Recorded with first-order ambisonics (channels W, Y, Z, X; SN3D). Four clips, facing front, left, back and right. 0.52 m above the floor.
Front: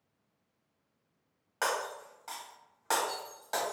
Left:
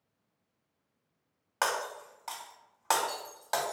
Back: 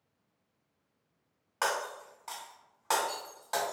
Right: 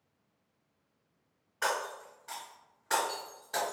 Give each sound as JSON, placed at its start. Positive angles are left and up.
{"t": 1.6, "sound": "breaking glass", "azimuth_deg": 90, "distance_m": 1.2}